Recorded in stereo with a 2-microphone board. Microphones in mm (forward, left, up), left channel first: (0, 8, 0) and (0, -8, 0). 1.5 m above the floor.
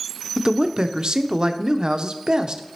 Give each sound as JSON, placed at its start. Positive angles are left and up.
{"t": 0.4, "sound": "a man speaking", "side_deg": -55, "distance_m": 0.6}